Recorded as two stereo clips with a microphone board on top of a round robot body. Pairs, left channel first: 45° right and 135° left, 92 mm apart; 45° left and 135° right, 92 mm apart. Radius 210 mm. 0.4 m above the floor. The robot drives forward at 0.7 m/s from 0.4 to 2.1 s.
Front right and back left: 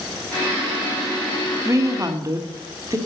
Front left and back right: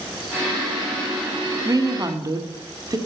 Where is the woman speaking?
175° right, 1.3 m.